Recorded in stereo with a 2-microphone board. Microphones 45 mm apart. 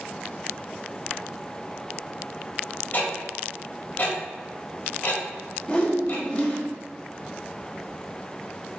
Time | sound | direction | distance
2.9 | ticking | 45° left (ahead or behind) | 1.7 m
5.7 | a whoosh | 25° left (ahead or behind) | 1.1 m